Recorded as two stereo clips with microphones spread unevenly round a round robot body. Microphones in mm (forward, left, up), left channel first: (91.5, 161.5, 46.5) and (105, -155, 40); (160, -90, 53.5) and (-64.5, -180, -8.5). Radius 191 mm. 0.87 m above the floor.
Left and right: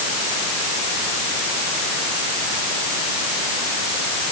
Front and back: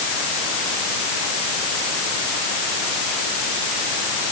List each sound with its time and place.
Only background noise.